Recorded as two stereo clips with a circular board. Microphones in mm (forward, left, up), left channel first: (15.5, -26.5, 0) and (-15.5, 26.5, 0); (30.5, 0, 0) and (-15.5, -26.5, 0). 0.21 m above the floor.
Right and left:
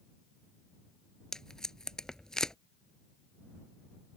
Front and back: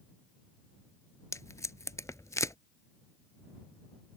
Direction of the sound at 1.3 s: 20° left.